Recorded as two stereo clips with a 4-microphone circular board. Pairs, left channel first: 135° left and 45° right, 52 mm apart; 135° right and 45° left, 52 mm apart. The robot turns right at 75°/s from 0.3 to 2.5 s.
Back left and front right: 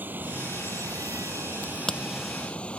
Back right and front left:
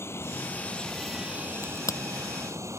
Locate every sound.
0.0 s running water: 100° right; by 2.8 s 65° left
1.6 s a crack: 170° right; by 2.0 s 140° right